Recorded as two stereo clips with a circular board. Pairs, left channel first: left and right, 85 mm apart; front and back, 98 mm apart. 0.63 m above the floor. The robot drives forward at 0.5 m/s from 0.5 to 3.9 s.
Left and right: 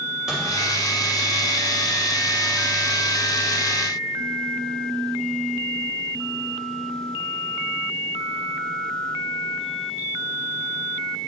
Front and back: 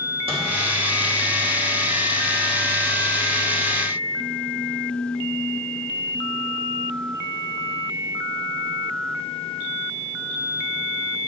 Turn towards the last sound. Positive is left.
turn(degrees=-175)